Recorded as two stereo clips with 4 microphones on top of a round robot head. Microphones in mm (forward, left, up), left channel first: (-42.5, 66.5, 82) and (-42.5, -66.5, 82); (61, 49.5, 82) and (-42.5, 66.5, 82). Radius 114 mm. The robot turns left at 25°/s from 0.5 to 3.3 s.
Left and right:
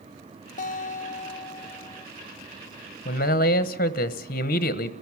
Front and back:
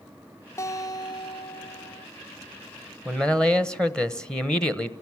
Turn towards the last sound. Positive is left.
turn(degrees=70)